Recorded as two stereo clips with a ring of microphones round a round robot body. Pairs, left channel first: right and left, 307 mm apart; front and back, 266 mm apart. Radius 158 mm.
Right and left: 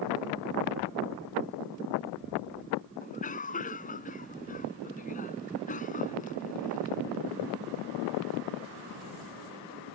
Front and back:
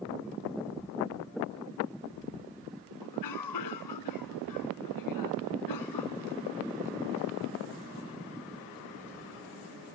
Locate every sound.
3.0 s a cough: 25° right